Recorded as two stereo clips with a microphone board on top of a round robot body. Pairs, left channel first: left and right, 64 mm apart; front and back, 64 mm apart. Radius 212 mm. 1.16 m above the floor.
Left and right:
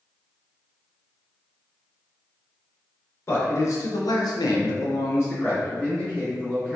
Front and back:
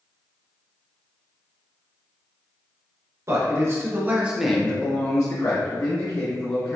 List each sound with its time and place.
3.3 s a man speaking: 140° left, 1.3 m; by 6.8 s 10° left, 1.8 m